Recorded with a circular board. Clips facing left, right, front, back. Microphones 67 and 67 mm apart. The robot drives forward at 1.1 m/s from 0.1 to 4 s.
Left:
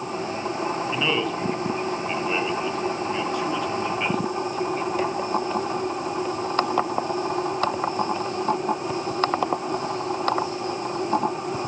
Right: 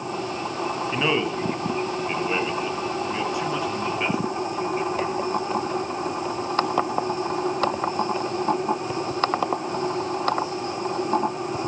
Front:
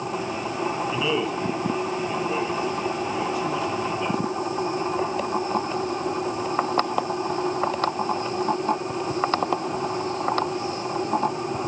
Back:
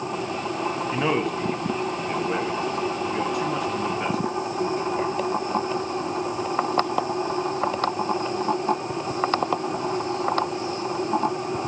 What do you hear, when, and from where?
0.9 s a man speaking: 150° right, 2 m; by 5.1 s 170° right, 5 m